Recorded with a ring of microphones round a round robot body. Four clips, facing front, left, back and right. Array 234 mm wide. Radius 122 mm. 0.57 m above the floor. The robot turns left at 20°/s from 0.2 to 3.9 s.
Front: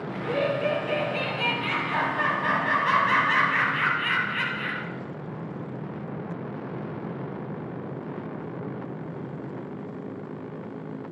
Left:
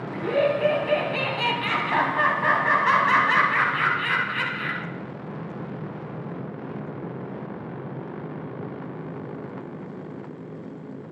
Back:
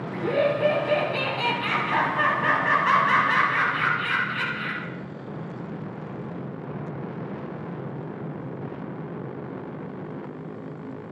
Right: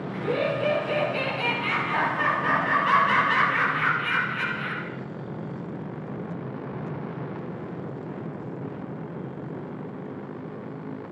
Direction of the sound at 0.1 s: 150° left.